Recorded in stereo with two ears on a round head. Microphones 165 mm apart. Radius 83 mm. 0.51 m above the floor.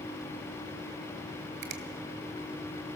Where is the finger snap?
60° right (ahead or behind), 2 m.